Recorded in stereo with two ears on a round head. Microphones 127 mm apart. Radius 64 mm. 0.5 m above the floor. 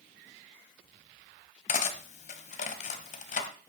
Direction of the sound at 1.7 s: 60° left (ahead or behind).